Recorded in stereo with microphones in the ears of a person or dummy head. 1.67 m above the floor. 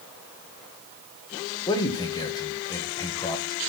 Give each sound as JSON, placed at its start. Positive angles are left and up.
{"t": 1.7, "sound": "a man speaking", "side_deg": 20, "distance_m": 1.8}